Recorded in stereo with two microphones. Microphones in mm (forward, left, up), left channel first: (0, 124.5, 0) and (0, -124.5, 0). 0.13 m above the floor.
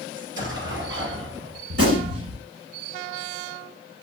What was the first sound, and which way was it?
An explosion, 50° right (ahead or behind).